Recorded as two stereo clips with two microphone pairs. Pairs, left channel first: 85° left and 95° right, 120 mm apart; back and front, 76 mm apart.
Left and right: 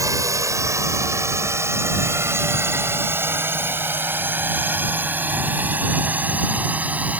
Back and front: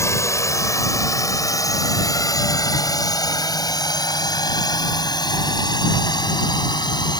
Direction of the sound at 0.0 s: 145° right.